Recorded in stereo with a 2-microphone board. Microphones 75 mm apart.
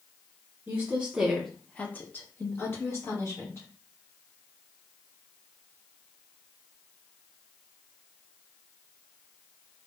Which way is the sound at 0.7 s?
25° right (ahead or behind).